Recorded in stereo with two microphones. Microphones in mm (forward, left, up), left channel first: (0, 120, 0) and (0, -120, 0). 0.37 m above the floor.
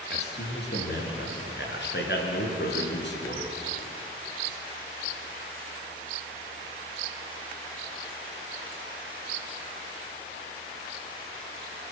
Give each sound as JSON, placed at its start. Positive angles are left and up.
{"t": 0.1, "sound": "a man speaking", "side_deg": 50, "distance_m": 5.5}